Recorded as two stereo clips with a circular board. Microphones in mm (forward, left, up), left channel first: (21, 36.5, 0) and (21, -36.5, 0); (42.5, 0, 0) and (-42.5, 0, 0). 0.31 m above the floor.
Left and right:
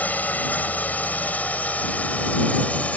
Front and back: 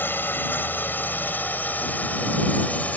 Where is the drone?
45° left; by 3.0 s 50° left.